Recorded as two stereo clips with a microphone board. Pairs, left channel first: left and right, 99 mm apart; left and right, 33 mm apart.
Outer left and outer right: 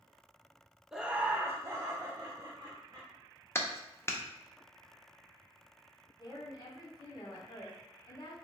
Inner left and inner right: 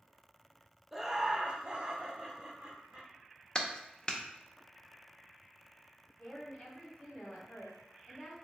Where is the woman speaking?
45° left (ahead or behind), 1.2 m.